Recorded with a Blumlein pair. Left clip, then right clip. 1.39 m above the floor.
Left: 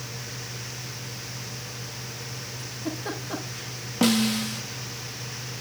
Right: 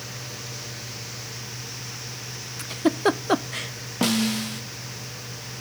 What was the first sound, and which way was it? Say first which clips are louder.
A giggle: right 13 dB; 50° right.